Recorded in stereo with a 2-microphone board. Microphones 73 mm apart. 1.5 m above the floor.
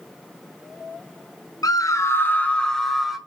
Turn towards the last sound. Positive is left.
turn(degrees=-5)  # may be behind; listen again after turning